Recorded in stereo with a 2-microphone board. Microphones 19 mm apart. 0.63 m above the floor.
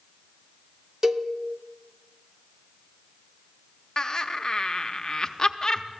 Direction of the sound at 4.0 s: 35° left (ahead or behind).